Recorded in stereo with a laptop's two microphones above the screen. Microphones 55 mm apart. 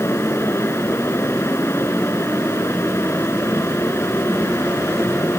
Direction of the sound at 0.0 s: 55° left (ahead or behind).